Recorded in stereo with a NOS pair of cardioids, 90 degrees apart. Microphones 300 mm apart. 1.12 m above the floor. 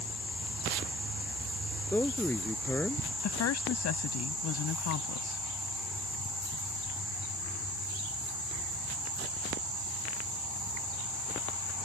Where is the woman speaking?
65° left.